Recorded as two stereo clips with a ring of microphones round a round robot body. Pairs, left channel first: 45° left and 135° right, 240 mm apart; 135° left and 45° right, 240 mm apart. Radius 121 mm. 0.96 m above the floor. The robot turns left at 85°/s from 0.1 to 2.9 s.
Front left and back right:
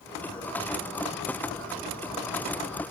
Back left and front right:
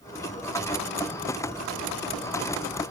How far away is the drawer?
No drawer in this recording.